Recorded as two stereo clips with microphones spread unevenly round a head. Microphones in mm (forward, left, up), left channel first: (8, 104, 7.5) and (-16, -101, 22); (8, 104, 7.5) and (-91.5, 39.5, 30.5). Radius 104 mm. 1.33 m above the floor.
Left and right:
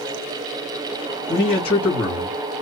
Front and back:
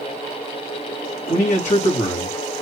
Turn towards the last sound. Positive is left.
turn(degrees=20)